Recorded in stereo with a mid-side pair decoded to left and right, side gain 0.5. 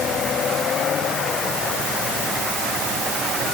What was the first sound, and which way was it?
Only background noise.